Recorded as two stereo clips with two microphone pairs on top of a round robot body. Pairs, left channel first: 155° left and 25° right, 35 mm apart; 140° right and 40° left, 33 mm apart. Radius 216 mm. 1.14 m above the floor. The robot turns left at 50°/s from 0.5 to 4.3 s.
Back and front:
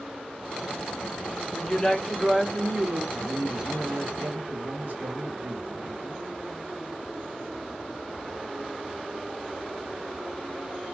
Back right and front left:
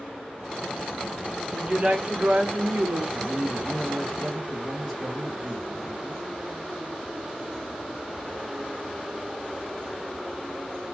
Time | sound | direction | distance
1.5 | a woman speaking | 105° left | 1.0 m
3.1 | a man speaking | 5° right | 1.6 m